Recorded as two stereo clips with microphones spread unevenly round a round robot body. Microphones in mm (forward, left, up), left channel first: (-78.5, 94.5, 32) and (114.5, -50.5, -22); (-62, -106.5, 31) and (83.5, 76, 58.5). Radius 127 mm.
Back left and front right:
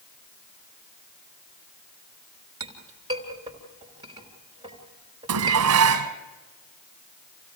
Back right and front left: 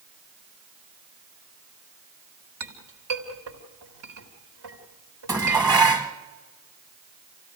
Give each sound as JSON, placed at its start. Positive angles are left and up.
{"t": 2.6, "sound": "a clink", "azimuth_deg": 35, "distance_m": 3.5}
{"t": 5.3, "sound": "dishes clattering", "azimuth_deg": -25, "distance_m": 1.9}